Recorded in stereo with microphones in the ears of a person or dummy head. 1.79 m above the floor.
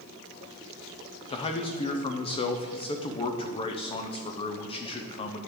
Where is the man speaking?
25° left (ahead or behind), 0.8 m.